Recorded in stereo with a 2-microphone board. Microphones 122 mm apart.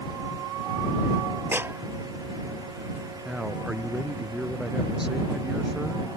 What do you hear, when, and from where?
1.5 s a clap: 20° right (ahead or behind)
3.2 s a man speaking: 5° right (ahead or behind)